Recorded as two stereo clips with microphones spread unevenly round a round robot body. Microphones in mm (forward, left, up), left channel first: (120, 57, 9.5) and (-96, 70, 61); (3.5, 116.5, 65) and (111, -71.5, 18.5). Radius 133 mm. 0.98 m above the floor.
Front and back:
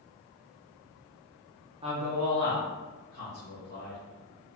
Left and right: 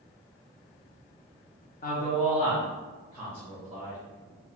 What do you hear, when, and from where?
1.8 s a man speaking: 115° left, 0.6 m; by 4.0 s 150° right, 1.4 m